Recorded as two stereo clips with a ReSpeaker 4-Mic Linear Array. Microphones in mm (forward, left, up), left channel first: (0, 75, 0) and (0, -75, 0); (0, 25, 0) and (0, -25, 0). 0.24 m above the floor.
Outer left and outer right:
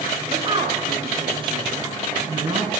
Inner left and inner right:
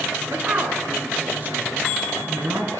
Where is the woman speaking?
35° right (ahead or behind), 2.5 m.